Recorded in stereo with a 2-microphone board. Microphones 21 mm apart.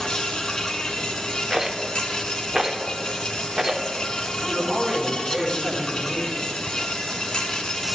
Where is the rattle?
20° right (ahead or behind), 1.3 m.